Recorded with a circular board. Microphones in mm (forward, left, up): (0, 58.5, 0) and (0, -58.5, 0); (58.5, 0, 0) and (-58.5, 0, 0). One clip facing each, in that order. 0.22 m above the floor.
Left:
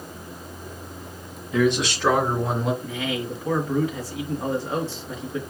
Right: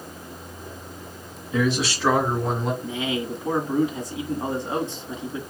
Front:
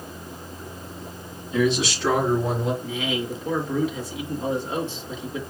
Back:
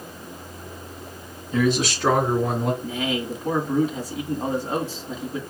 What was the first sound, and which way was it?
A man speaking, 170° right.